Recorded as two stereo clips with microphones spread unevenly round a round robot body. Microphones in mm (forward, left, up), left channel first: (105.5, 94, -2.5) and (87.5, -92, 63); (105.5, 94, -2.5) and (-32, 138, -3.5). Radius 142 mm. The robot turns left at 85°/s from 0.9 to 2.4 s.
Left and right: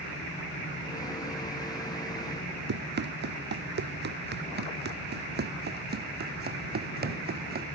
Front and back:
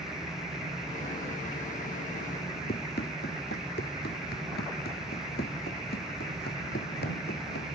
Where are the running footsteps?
70° right; by 7.7 s 60° right.